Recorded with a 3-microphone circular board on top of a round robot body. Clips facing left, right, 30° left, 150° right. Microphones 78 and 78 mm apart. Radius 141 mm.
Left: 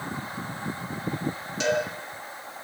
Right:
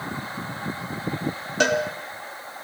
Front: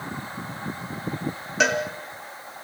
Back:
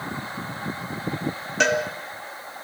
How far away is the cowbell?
About 3 m.